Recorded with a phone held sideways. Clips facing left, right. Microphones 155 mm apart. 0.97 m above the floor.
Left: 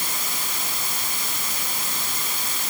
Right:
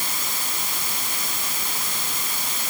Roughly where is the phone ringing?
No phone ringing in this recording.